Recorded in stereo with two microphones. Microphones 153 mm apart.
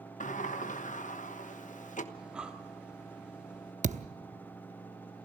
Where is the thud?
50° right (ahead or behind), 0.7 m.